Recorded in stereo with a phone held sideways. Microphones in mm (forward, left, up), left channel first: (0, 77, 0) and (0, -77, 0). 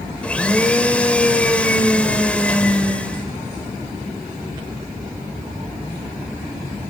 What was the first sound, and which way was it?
A blender, 5° left (ahead or behind).